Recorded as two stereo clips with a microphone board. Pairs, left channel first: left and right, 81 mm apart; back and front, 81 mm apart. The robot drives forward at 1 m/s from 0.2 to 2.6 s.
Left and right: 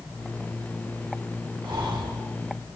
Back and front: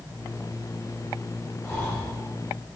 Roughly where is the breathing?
Behind right.